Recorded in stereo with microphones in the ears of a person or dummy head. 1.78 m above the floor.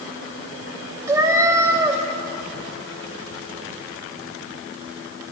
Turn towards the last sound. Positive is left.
turn(degrees=-15)  # may be behind; listen again after turning